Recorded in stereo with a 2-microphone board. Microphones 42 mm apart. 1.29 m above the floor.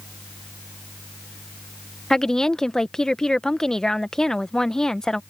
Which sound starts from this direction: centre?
A woman speaking, at 2.1 s.